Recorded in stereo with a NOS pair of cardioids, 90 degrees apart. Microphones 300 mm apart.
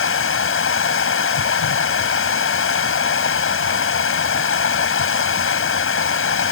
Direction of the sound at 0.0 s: 45° left.